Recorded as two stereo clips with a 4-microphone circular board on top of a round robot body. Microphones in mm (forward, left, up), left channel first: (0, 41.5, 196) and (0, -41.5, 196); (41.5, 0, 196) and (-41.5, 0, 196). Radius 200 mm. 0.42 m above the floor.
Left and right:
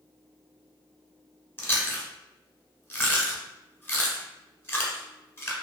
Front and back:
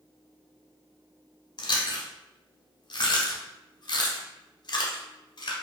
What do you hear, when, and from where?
1.6 s chewing: 25° left, 0.8 m